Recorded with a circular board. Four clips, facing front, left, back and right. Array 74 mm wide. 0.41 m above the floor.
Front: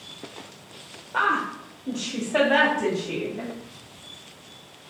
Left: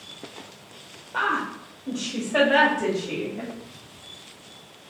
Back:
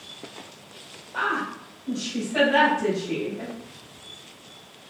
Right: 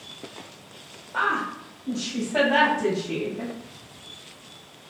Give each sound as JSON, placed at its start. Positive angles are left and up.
{"t": 1.1, "sound": "a woman speaking", "azimuth_deg": 20, "distance_m": 1.3}